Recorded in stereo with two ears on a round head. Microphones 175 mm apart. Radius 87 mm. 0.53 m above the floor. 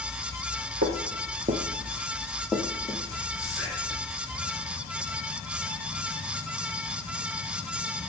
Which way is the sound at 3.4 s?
5° right (ahead or behind).